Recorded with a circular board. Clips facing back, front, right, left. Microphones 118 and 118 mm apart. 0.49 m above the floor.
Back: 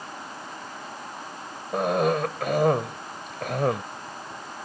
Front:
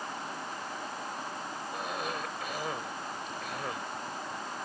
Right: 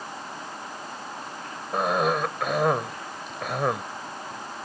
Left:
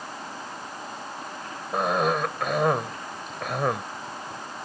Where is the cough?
Straight behind.